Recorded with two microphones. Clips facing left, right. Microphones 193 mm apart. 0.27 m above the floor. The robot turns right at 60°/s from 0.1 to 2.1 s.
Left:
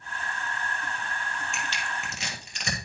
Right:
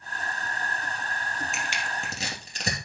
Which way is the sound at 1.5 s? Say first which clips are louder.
Right 1 dB; centre (ahead or behind).